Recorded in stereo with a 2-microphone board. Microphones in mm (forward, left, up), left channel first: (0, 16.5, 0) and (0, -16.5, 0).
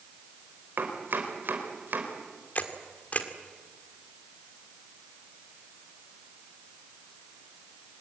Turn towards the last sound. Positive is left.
turn(degrees=55)  # may be behind; listen again after turning